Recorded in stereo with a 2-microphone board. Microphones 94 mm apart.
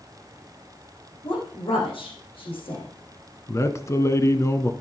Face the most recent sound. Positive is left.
turn(degrees=35)  # may be behind; listen again after turning